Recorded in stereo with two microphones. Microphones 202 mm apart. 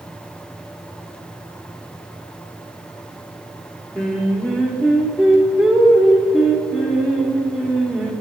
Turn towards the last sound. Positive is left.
turn(degrees=5)  # may be behind; listen again after turning